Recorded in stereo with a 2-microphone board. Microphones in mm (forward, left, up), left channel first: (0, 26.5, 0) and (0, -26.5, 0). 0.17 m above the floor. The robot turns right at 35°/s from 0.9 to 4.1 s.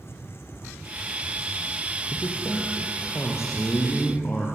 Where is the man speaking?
75° left, 5.5 m; by 4.5 s 145° left, 5.5 m.